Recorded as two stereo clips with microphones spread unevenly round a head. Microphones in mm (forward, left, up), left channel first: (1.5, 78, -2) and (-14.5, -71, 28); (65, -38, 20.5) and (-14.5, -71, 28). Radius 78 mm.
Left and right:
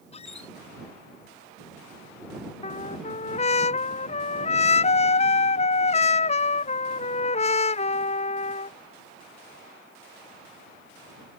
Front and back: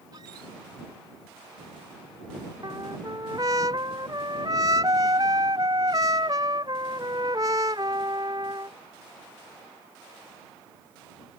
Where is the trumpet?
135° left.